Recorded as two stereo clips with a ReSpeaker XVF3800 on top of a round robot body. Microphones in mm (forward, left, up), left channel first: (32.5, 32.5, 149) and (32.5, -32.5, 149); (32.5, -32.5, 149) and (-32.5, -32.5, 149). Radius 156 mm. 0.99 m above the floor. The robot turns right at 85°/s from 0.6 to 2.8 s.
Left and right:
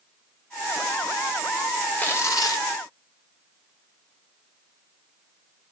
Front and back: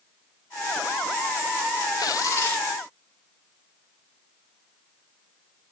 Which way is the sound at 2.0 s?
20° left.